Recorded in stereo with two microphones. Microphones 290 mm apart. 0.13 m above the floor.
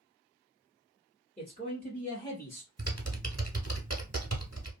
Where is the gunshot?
No gunshot in this recording.